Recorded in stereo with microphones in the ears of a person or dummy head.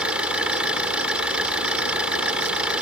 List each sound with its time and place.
0.0 s an engine running: 5° right (ahead or behind)